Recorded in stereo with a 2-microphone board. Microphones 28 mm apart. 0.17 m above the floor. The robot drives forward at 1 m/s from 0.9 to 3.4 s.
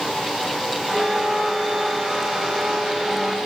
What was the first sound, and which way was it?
A flute, 60° right (ahead or behind).